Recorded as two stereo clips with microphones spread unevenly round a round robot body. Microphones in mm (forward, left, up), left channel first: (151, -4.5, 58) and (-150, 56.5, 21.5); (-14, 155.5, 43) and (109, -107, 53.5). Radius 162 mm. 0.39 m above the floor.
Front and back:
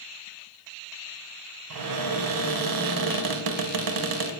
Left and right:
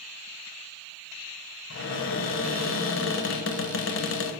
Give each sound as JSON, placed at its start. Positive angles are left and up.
{"t": 1.7, "sound": "a cupboard door", "azimuth_deg": 165, "distance_m": 0.7}